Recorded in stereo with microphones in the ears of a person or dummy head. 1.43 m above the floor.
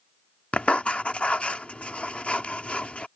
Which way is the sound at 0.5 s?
5° left (ahead or behind).